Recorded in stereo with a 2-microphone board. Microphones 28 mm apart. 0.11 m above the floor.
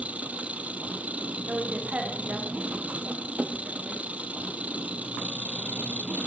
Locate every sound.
0.0 s an engine running: 60° right (ahead or behind), 1.1 m
1.5 s a woman speaking: 60° right (ahead or behind), 7 m